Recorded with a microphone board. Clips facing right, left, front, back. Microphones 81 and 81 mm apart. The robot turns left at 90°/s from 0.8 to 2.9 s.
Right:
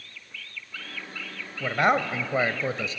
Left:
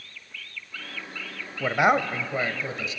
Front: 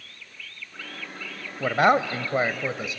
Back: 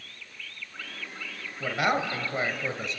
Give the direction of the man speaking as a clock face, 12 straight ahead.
11 o'clock.